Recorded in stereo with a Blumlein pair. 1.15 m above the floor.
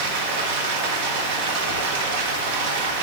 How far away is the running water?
About 1.0 m.